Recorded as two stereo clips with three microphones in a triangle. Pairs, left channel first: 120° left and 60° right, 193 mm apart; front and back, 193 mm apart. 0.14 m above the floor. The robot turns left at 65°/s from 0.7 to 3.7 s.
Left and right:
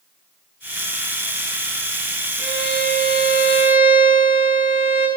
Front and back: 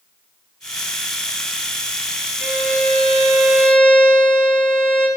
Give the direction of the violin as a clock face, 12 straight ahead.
6 o'clock.